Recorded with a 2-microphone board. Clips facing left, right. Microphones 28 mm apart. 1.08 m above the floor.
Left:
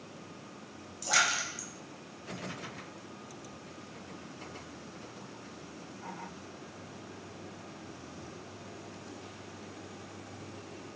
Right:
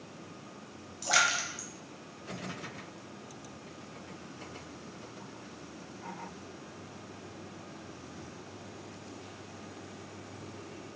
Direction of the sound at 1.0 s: 20° right (ahead or behind).